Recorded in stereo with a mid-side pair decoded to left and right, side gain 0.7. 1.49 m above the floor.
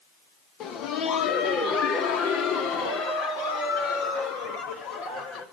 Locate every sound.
0.6 s laughter: 50° left, 1.6 m; by 5.4 s 65° left, 6.5 m